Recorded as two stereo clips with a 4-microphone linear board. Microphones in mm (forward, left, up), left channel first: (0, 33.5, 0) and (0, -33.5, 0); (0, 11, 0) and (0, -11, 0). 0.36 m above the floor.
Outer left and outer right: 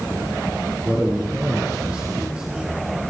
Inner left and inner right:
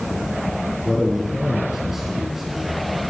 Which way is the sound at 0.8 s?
10° right (ahead or behind).